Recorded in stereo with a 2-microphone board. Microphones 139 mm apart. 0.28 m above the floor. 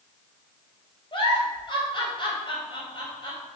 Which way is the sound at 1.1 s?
35° left (ahead or behind).